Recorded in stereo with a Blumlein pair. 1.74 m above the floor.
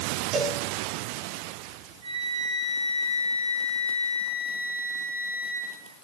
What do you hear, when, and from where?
0.3 s a cowbell: 35° right, 2 m
2.0 s a flute: 55° right, 6 m